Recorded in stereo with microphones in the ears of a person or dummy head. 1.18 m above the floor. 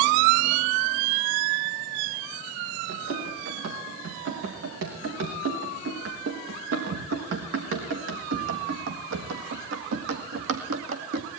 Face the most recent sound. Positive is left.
turn(degrees=-70)  # may be behind; listen again after turning